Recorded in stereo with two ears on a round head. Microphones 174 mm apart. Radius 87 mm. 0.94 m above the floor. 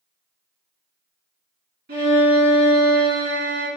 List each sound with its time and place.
1.9 s a violin: 55° right (ahead or behind), 1.6 m